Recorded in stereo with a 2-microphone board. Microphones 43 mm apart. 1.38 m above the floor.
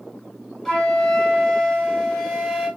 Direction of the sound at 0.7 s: 5° left (ahead or behind).